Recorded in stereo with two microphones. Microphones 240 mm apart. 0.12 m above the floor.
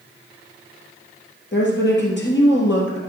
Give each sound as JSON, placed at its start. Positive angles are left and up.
{"t": 1.5, "sound": "a woman speaking", "side_deg": 50, "distance_m": 3.0}